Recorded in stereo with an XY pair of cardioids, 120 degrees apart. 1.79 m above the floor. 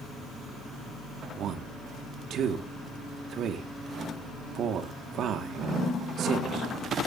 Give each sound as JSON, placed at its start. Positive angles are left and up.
{"t": 1.4, "sound": "a man speaking", "azimuth_deg": -60, "distance_m": 2.0}